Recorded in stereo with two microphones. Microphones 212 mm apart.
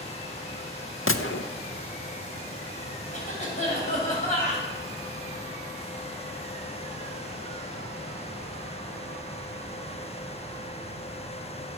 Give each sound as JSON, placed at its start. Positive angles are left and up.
{"t": 1.1, "sound": "a gunshot", "side_deg": 75, "distance_m": 0.7}
{"t": 3.1, "sound": "a cough", "side_deg": 35, "distance_m": 6.5}